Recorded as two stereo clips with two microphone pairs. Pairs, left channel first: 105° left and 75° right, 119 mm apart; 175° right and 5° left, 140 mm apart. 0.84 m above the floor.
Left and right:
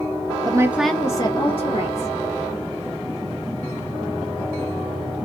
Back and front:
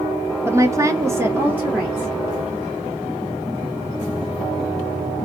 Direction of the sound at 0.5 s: 55° right.